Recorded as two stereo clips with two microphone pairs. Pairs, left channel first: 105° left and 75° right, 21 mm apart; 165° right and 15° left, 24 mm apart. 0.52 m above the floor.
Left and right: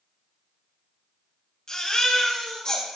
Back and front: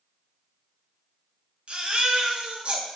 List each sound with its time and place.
1.7 s a baby crying: 50° left, 3 m